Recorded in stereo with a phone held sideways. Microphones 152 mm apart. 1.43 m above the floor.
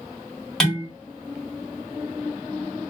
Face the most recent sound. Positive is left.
turn(degrees=5)  # may be behind; listen again after turning